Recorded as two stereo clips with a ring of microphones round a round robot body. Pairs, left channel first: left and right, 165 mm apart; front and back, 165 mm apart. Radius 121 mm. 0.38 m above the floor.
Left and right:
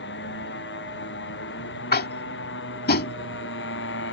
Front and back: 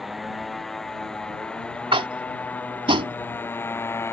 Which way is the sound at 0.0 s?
90° left.